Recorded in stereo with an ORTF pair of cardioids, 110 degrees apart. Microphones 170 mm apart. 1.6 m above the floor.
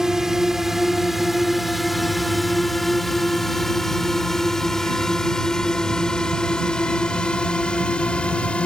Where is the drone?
5° right; by 8.7 s 5° left.